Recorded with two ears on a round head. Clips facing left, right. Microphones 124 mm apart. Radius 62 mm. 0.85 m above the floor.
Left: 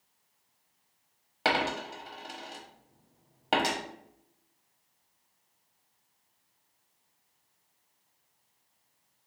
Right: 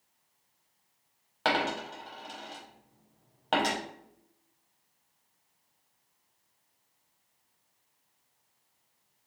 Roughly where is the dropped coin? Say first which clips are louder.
Even; centre.